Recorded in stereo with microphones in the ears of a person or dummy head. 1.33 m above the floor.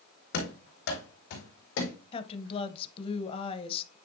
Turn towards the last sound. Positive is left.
turn(degrees=30)  # may be behind; listen again after turning